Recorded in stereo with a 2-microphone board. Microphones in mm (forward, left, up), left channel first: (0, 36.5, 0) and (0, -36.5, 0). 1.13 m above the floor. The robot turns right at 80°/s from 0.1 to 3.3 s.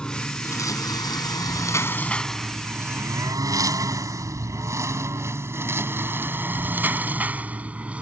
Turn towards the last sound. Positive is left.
turn(degrees=-20)  # may be behind; listen again after turning